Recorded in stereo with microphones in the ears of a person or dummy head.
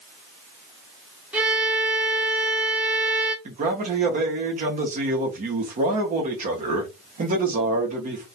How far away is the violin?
About 0.9 m.